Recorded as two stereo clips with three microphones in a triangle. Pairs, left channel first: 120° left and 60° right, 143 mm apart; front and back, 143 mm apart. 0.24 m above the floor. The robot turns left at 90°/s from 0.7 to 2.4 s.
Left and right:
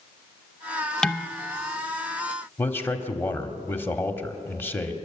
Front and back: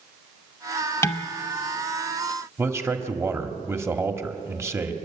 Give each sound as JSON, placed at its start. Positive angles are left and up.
{"t": 1.0, "sound": "dishes clattering", "azimuth_deg": 40, "distance_m": 0.7}
{"t": 2.6, "sound": "a man speaking", "azimuth_deg": 160, "distance_m": 1.4}